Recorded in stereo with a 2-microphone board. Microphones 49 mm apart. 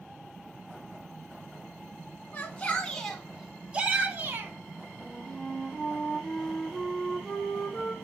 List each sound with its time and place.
2.3 s a shout: 25° left (ahead or behind), 2 m; by 4.5 s 50° right (ahead or behind), 1.8 m
5.0 s a flute: centre (ahead or behind), 1.3 m